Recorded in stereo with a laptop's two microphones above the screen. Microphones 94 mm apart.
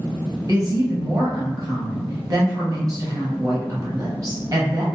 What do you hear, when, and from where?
0.5 s a woman speaking: 40° right (ahead or behind), 0.9 m